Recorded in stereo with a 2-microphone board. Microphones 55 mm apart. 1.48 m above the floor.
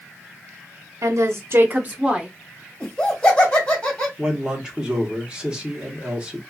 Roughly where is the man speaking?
Centre.